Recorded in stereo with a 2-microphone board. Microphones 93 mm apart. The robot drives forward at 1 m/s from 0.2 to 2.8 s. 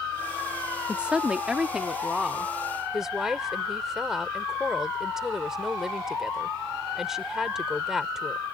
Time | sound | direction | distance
0.9 | a woman speaking | 10° right (ahead or behind) | ?